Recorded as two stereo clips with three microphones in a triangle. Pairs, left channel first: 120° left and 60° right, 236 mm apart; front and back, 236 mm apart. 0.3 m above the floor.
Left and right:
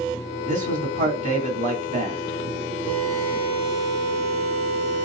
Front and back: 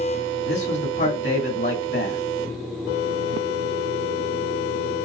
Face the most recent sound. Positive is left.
turn(degrees=-10)